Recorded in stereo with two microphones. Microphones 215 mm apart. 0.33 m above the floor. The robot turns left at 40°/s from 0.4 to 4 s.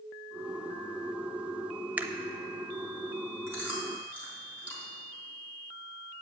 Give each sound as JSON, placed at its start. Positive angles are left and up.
{"t": 2.0, "sound": "a camera shutter", "side_deg": -10, "distance_m": 0.6}
{"t": 3.5, "sound": "chewing", "side_deg": -15, "distance_m": 3.5}